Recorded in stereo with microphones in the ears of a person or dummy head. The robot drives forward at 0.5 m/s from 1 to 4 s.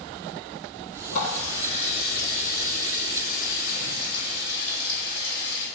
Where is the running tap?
85° left, 4 m; by 5.7 s 70° left (ahead or behind), 4 m.